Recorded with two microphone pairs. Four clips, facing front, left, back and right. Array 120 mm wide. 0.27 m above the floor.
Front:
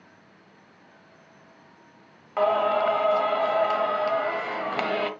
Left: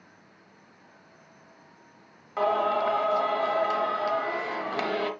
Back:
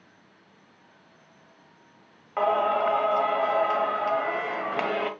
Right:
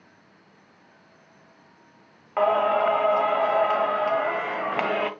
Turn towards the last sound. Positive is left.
turn(degrees=-95)